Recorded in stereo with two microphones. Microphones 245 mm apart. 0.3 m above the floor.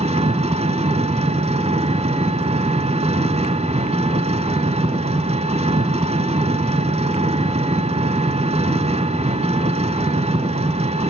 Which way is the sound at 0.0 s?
25° right (ahead or behind).